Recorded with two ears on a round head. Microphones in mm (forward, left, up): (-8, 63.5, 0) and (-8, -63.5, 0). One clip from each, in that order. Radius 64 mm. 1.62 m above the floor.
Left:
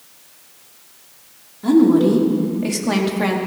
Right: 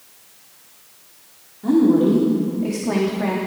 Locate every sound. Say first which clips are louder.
1.6 s a woman speaking: left 2 dB; 70° left (ahead or behind), 3 m; by 3.4 s 65° left (ahead or behind), 2.5 m